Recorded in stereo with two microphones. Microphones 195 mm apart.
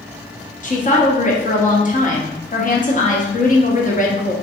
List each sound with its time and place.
0.6 s a woman speaking: 40° left (ahead or behind), 0.9 m